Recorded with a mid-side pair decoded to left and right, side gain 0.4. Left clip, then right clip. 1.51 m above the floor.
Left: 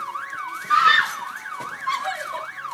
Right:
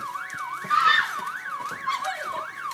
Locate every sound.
0.7 s a scream: 30° left; by 2.5 s 15° left